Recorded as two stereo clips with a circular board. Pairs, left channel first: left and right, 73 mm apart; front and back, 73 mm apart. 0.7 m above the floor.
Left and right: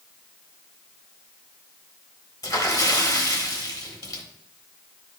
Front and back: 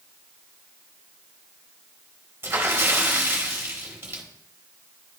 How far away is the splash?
About 1.2 m.